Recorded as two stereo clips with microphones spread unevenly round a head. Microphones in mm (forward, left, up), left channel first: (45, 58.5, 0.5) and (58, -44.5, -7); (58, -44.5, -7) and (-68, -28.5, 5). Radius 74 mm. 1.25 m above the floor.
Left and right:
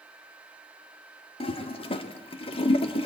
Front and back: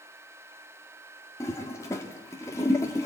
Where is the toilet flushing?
65° left, 2.0 m.